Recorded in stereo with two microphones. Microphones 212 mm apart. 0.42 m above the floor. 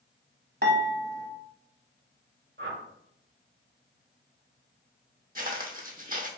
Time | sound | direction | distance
0.6 | dishes clattering | 50° right (ahead or behind) | 1.0 m
2.6 | a whoosh | 60° right (ahead or behind) | 0.9 m
5.3 | footsteps | 45° right (ahead or behind) | 0.7 m